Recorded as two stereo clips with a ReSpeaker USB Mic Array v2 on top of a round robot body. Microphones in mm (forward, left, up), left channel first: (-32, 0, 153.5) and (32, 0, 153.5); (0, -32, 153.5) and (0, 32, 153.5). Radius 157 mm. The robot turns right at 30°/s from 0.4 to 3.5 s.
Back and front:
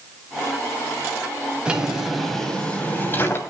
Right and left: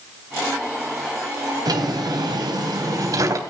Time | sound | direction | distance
1.6 | a drawer | 75° left | 3 m